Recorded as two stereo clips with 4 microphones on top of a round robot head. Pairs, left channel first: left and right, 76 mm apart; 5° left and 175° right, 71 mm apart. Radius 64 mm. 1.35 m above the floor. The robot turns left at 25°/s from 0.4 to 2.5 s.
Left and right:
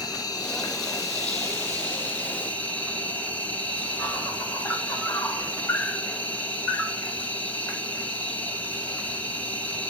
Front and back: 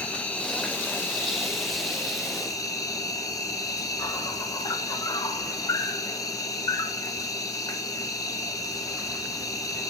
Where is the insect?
75° left, 1.7 m; by 9.9 s 25° left, 1.7 m.